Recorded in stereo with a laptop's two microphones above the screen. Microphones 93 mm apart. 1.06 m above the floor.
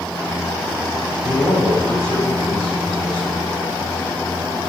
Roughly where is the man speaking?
Left.